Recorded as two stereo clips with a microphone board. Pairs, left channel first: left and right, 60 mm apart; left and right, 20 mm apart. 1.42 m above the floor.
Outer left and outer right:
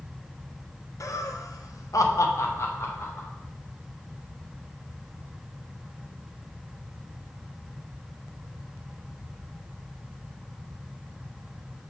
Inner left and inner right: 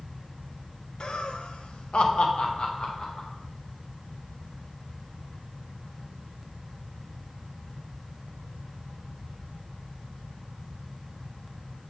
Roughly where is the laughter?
Left.